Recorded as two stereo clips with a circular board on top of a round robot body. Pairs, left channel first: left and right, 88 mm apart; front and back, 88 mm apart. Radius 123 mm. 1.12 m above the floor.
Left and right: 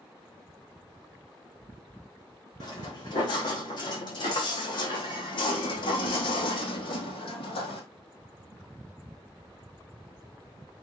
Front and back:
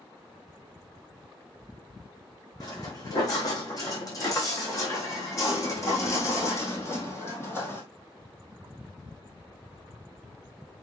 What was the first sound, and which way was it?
Footsteps, 50° left.